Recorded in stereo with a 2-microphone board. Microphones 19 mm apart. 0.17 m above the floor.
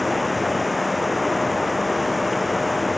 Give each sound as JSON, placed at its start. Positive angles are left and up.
{"t": 0.0, "sound": "running water", "side_deg": 0}